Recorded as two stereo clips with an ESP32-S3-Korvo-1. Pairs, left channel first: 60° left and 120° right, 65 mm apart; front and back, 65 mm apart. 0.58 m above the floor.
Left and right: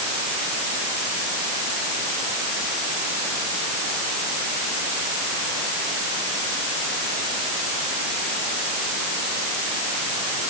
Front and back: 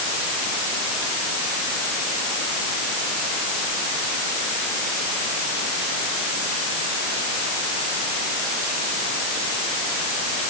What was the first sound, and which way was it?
Only background noise.